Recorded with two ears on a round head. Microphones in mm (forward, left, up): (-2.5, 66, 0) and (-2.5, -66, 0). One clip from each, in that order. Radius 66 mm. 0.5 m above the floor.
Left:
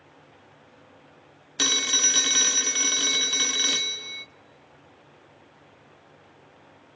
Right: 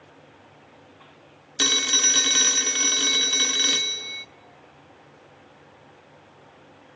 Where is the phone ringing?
Centre (ahead or behind), 0.5 m.